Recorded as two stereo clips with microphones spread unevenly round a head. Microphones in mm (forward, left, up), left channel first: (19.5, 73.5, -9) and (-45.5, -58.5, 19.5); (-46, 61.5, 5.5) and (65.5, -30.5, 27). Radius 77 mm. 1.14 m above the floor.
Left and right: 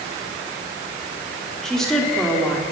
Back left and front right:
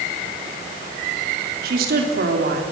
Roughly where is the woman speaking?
Ahead.